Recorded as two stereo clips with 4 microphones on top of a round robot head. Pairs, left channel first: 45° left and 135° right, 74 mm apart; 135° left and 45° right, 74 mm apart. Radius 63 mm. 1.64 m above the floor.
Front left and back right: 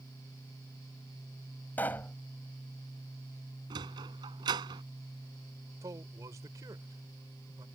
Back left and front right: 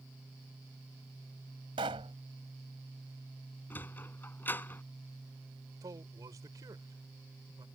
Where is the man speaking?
85° right.